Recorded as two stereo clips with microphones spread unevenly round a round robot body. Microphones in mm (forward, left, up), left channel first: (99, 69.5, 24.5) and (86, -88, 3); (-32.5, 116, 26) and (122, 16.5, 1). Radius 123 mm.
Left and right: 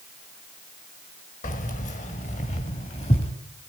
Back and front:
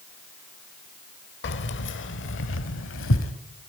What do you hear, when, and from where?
1.4 s keys jangling: 140° left, 1.6 m; by 3.3 s 150° left, 2.5 m